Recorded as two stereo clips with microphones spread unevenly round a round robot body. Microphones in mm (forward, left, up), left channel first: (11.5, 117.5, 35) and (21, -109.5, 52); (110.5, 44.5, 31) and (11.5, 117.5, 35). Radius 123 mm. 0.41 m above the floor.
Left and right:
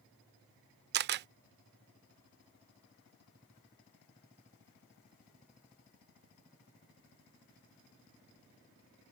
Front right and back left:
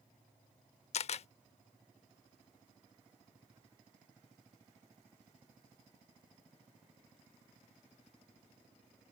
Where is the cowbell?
I don't hear a cowbell.